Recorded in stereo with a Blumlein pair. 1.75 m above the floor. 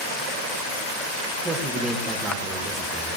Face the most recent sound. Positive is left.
turn(degrees=-15)